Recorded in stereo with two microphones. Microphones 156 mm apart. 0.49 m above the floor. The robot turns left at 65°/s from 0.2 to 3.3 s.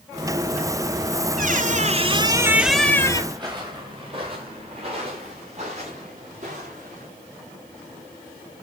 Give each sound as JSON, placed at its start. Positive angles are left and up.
{"t": 1.4, "sound": "a squeak", "azimuth_deg": -90, "distance_m": 0.8}
{"t": 3.3, "sound": "footsteps", "side_deg": -25, "distance_m": 2.5}